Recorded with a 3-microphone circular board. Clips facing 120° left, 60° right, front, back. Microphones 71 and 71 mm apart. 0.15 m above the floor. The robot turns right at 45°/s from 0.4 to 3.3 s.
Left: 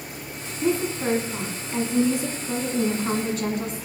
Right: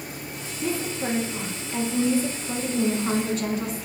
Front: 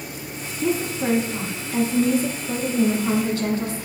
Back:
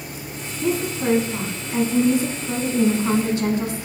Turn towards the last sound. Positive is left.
turn(degrees=-145)